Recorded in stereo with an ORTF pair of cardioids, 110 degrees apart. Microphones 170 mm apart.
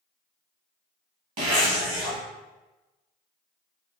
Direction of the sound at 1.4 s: 55° right.